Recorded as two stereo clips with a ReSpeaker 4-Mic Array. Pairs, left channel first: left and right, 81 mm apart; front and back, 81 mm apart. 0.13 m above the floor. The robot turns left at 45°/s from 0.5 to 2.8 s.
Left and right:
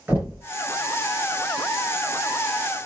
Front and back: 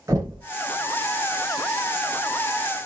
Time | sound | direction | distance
0.1 | knocking | 155° right | 2 m